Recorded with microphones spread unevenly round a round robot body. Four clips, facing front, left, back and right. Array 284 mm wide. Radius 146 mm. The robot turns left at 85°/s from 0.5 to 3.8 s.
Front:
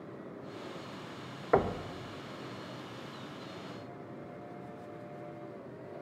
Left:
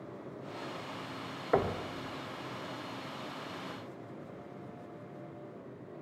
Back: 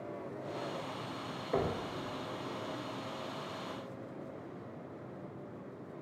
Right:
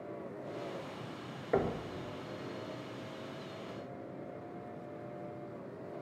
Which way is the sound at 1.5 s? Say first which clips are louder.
Left 2 dB, front 6 dB; 5° left.